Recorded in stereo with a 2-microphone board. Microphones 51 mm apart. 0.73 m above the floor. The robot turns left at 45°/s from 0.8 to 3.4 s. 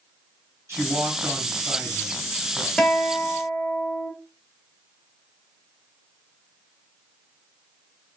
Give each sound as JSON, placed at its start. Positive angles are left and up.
{"t": 0.7, "sound": "a man speaking", "azimuth_deg": -75, "distance_m": 1.8}
{"t": 2.8, "sound": "a guitar", "side_deg": 20, "distance_m": 1.0}